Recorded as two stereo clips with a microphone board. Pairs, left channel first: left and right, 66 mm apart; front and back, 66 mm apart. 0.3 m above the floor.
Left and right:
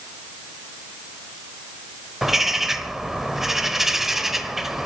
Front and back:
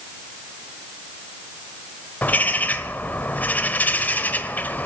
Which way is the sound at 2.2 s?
10° right.